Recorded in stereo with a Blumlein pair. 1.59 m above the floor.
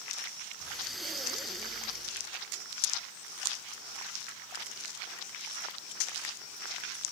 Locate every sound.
0.6 s breathing: straight ahead, 1.7 m